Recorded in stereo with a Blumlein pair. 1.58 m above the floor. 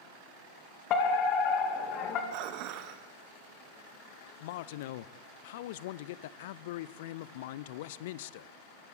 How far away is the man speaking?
About 0.7 m.